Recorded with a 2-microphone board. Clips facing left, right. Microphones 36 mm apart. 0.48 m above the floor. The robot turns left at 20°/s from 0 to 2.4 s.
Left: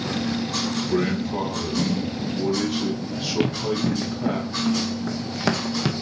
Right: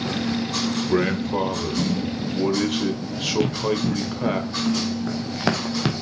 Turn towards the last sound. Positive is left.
turn(degrees=-20)  # may be behind; listen again after turning